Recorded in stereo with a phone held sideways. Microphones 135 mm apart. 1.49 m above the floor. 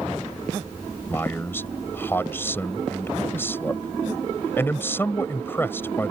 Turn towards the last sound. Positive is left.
turn(degrees=15)  # may be behind; listen again after turning